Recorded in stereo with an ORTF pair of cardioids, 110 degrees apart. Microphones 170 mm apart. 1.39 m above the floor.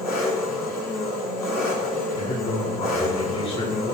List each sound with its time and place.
0.0 s an engine running: 65° left, 4.5 m
2.1 s a man speaking: 40° left, 4.5 m